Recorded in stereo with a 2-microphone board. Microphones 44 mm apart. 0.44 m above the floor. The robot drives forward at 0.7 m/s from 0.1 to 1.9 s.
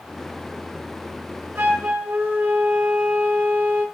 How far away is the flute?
About 4 m.